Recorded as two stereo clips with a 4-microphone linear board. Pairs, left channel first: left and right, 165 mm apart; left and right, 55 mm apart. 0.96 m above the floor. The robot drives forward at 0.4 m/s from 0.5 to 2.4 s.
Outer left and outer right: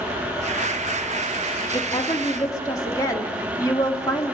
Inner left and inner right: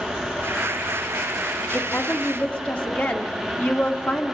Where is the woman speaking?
25° left (ahead or behind), 1.8 m; by 4.3 s 20° left (ahead or behind), 2 m.